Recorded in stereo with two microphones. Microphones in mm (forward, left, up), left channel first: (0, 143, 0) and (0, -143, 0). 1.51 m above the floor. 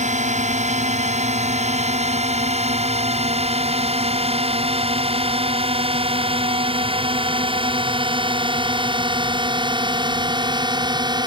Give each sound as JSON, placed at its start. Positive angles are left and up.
{"t": 0.0, "sound": "a drone", "side_deg": -25}